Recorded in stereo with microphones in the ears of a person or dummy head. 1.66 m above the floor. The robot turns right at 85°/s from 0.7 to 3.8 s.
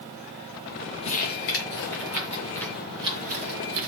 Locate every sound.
1.0 s crumpling: 30° left (ahead or behind), 5 m; by 3.9 s 75° right (ahead or behind), 5 m